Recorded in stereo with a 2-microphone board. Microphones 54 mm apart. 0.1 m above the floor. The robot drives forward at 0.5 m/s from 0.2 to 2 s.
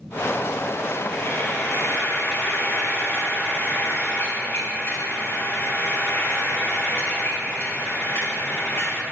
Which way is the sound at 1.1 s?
40° left (ahead or behind).